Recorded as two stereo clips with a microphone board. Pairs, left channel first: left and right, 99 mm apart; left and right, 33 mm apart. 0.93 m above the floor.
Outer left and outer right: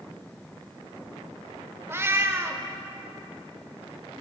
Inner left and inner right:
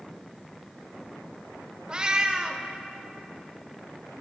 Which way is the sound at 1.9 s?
25° right (ahead or behind).